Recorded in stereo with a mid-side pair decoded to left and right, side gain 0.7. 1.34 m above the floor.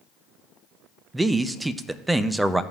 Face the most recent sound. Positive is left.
turn(degrees=-10)